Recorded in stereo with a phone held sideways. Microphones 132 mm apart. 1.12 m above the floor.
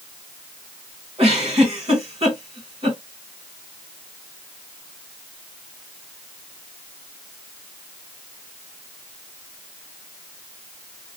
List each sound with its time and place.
1.2 s a giggle: 45° right (ahead or behind), 2.0 m